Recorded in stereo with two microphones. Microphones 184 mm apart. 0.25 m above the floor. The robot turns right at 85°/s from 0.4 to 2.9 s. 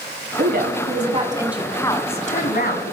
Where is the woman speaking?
105° right, 1.9 m; by 2.9 s 105° left, 1.9 m.